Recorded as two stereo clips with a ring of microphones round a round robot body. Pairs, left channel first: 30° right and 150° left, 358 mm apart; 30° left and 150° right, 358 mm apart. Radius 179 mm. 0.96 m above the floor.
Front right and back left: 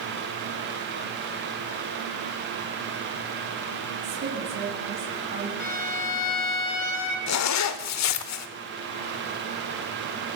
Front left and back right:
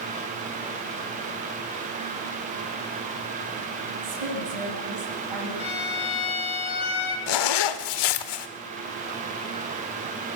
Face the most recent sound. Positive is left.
turn(degrees=15)